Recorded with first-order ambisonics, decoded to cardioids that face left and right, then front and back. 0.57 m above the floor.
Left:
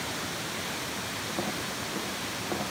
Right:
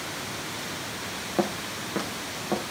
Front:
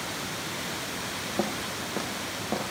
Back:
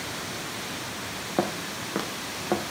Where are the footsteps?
155° right, 4 m; by 2.7 s 170° right, 5.5 m.